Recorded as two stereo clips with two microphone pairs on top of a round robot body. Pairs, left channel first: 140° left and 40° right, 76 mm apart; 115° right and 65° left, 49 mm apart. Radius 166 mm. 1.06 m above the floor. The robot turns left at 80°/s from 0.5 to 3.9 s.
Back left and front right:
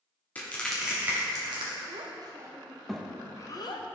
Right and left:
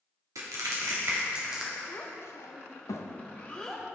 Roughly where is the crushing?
Left.